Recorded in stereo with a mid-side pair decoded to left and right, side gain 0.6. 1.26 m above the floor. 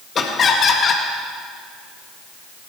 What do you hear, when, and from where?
0.1 s laughter: 40° left, 1.7 m